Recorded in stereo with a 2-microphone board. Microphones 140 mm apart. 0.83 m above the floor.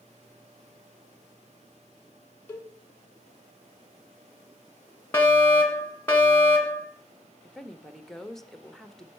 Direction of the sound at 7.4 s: Centre (ahead or behind).